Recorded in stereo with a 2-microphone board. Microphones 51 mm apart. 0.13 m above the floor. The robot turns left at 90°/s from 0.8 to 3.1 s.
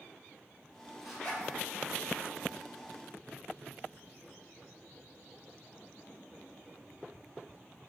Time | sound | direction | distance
1.0 | a zipper | centre (ahead or behind) | 1.8 m